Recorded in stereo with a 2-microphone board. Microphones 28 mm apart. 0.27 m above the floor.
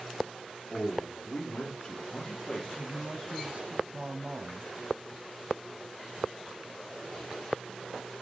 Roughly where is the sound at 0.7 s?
Left.